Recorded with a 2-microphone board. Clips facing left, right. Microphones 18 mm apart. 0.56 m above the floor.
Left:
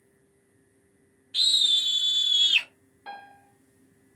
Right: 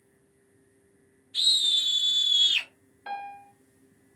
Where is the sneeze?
I don't hear a sneeze.